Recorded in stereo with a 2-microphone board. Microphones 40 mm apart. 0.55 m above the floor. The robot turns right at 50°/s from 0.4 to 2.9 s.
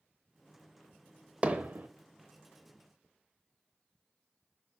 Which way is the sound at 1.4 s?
30° right (ahead or behind).